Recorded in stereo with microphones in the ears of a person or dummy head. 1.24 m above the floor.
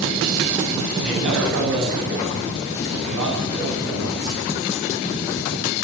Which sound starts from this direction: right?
A man speaking, at 1.0 s.